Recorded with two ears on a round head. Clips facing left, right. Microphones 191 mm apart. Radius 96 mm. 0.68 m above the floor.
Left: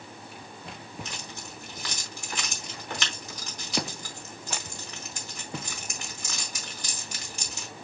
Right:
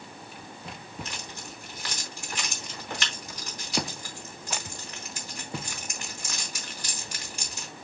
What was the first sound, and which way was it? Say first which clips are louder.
Keys jangling: even; 85° left.